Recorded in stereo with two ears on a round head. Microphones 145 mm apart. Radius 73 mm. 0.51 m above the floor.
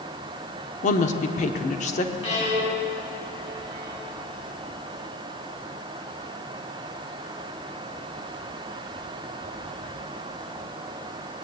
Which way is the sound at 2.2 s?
40° left (ahead or behind).